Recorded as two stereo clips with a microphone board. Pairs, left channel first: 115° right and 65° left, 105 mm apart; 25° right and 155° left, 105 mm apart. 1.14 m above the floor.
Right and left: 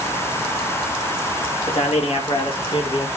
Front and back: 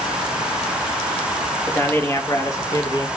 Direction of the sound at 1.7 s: 95° right.